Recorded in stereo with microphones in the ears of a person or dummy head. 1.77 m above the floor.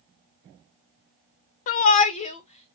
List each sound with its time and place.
1.7 s a shout: 50° left (ahead or behind), 0.6 m; by 2.7 s 40° left (ahead or behind), 1.7 m